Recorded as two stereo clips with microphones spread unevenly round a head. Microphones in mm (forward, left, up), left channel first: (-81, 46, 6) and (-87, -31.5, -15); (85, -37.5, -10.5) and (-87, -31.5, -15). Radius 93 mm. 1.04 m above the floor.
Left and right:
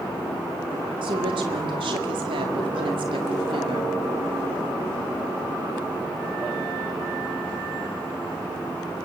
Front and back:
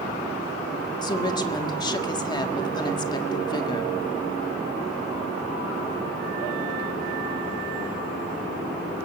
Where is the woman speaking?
70° right, 1.8 m.